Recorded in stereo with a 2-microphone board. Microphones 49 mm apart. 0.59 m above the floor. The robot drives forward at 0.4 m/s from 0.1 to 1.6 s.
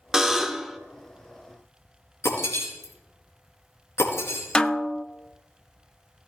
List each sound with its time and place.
0.1 s a buzzer: 10° right (ahead or behind), 0.9 m
2.2 s breaking glass: 65° left (ahead or behind), 4.5 m
4.5 s a snare drum: 15° left (ahead or behind), 0.5 m